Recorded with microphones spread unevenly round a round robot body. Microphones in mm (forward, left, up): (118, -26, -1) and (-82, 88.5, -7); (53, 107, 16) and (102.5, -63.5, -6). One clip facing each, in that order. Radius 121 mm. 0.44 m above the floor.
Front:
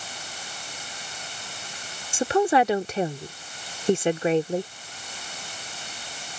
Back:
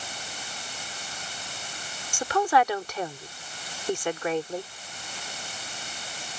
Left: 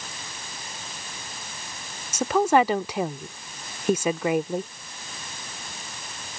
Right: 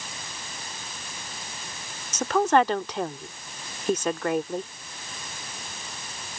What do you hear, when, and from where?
2.1 s a woman speaking: 20° left